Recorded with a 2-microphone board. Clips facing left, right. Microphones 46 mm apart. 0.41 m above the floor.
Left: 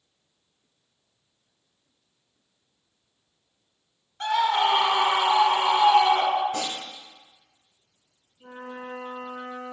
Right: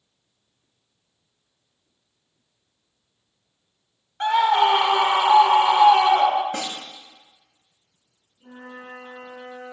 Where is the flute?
55° left (ahead or behind), 2.5 m.